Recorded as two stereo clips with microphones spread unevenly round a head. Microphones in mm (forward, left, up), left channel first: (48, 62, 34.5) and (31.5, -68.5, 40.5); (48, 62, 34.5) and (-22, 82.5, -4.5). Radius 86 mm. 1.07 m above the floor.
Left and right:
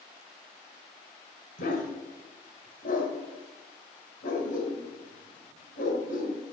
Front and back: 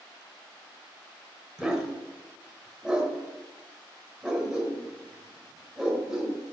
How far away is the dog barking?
About 2 m.